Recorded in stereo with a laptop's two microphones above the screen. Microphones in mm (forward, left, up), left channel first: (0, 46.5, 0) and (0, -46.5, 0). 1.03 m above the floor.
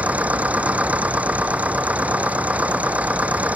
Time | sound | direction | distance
0.0 | a machine running | 15° right (ahead or behind) | ?